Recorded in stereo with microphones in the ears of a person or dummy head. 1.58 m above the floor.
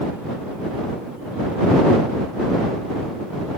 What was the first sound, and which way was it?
Only background noise.